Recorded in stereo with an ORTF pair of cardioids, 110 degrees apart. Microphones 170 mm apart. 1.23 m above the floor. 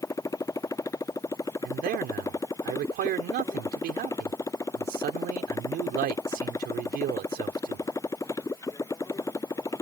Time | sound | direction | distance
0.0 | a motorcycle | 20° left | ?
1.6 | a man speaking | 70° right | ?